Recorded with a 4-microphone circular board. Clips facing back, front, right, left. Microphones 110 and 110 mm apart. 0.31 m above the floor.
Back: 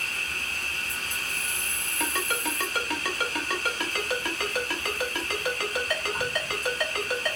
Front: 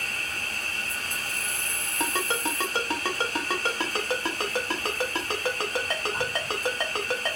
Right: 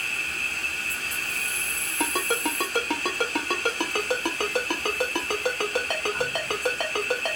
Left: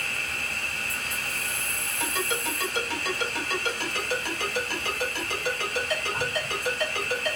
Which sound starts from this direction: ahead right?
A ringtone, at 2.0 s.